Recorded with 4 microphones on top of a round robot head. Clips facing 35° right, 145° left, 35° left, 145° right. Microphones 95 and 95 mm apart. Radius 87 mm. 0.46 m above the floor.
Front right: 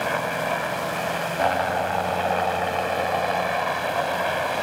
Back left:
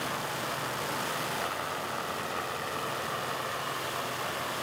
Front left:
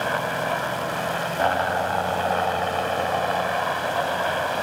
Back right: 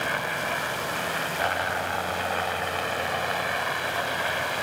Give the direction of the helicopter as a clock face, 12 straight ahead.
1 o'clock.